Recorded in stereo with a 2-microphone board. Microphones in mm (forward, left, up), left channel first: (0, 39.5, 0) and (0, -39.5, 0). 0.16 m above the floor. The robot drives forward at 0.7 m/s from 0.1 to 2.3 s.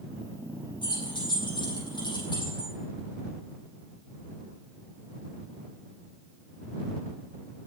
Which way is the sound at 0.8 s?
80° left.